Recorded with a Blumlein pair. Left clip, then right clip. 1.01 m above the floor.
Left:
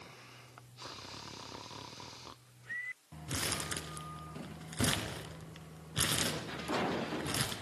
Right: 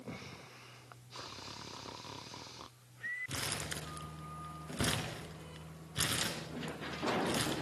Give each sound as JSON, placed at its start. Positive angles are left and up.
{"t": 3.3, "sound": "crumpling", "azimuth_deg": 15, "distance_m": 2.5}